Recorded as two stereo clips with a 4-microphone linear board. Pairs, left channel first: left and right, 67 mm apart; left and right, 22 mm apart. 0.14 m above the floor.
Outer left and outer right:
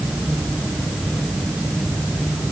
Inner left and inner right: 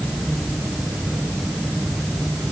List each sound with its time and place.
Only background noise.